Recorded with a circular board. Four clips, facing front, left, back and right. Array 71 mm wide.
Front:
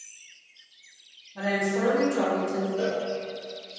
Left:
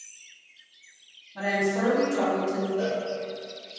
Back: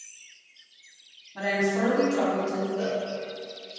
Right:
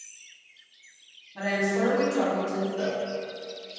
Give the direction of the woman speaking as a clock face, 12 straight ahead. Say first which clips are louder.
Even, back 1 dB; 6 o'clock.